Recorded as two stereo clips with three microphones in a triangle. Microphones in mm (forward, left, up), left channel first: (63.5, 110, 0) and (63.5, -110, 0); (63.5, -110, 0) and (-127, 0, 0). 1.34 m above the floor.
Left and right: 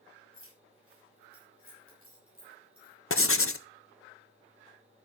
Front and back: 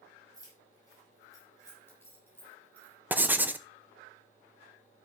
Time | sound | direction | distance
0.3 | keys jangling | 105° right | 6 m
3.1 | writing | 70° left | 0.7 m